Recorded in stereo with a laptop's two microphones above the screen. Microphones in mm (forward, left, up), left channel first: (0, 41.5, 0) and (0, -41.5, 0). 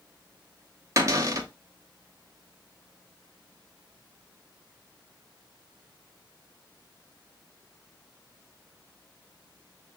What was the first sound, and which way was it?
A cupboard door, 35° right (ahead or behind).